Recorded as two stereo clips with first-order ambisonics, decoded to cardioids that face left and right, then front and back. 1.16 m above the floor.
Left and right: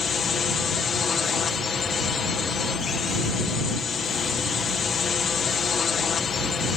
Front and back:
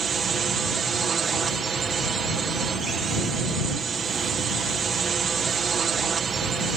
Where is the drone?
135° left.